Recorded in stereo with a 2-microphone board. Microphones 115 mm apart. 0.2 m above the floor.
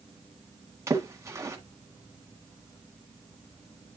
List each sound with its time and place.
0.9 s a splash: 25° right (ahead or behind), 1.5 m